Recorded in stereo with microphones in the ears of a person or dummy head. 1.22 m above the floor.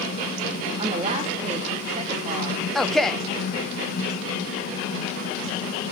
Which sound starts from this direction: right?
A woman speaking, at 0.8 s.